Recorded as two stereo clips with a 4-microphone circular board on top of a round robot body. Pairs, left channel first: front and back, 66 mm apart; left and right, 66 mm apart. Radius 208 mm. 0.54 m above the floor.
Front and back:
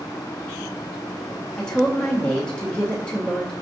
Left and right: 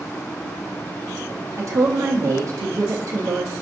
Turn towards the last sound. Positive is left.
turn(degrees=-70)